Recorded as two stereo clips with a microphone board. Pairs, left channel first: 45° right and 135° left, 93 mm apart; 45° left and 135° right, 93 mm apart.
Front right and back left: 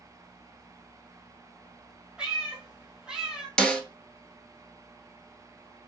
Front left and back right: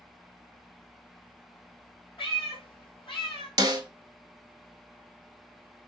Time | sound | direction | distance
2.2 | a cat meowing | 55° left | 1.1 m
3.6 | a snare drum | 125° right | 0.6 m